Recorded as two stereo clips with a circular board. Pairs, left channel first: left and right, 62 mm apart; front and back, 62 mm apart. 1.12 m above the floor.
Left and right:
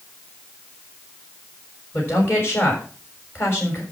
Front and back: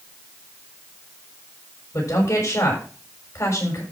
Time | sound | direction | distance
1.9 | a woman speaking | 40° left | 6.5 m